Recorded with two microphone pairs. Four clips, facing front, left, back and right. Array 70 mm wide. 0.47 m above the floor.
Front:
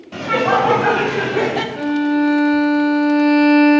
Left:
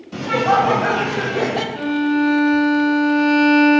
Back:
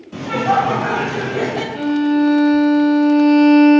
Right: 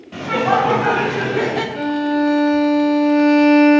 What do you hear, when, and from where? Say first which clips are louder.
0.1 s laughter: left 1 dB, front 1 dB; 25° right, 2.5 m; by 1.6 s 45° right, 1.7 m
1.8 s a violin: left 1 dB, back 3 dB; 90° right, 1.7 m